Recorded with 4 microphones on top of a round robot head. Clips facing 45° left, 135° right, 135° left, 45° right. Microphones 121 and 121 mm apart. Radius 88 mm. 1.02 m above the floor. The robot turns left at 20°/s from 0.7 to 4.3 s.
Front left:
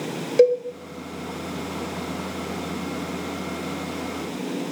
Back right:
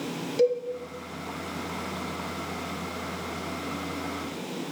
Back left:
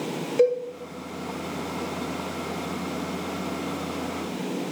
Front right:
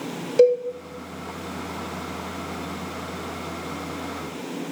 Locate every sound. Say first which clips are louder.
0.4 s a cowbell: front left 7 dB, front right 5 dB; 15° left, 0.5 m